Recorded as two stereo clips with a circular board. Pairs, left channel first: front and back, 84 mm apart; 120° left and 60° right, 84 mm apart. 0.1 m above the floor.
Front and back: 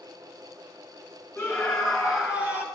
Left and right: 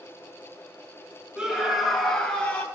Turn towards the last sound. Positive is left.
turn(degrees=155)